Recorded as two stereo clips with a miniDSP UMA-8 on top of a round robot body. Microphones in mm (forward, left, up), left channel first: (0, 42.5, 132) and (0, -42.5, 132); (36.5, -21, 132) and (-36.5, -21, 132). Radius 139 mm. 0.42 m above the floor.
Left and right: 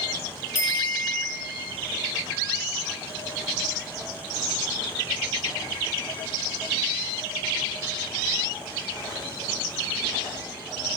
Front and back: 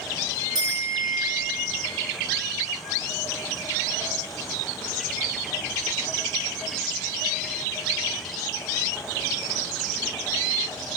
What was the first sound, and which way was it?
A bicycle bell, 150° left.